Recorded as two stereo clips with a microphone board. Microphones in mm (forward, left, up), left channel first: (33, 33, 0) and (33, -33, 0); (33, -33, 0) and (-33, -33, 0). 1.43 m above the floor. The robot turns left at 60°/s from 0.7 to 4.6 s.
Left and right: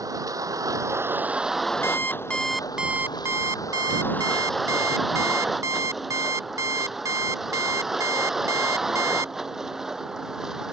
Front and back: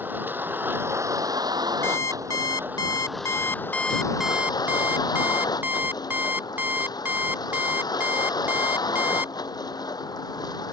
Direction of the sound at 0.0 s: 120° right.